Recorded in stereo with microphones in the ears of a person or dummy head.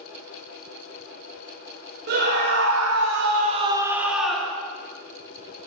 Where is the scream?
50° right (ahead or behind), 1.3 m; by 4.6 s 5° left (ahead or behind), 1.5 m.